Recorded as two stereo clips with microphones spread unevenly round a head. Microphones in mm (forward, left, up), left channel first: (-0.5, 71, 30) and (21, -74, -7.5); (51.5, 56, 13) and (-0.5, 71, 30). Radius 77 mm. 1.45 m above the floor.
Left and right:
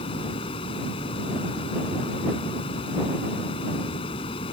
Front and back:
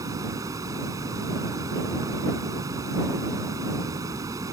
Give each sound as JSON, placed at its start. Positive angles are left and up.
{"t": 0.0, "sound": "running water", "azimuth_deg": 155}